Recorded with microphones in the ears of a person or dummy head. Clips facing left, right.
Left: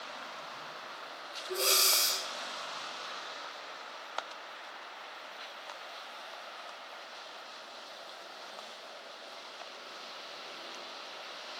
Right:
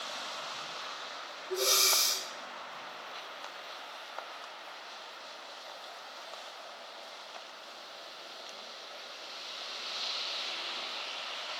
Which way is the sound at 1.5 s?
45° left (ahead or behind).